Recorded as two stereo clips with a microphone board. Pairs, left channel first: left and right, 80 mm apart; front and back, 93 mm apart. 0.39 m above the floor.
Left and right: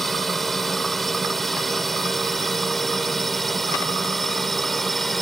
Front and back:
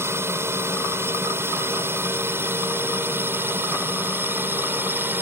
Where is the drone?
175° left.